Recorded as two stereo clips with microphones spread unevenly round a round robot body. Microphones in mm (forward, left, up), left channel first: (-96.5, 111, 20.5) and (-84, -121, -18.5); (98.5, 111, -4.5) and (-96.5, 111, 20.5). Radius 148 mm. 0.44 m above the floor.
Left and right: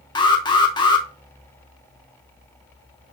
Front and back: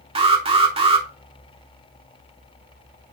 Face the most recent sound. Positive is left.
turn(degrees=160)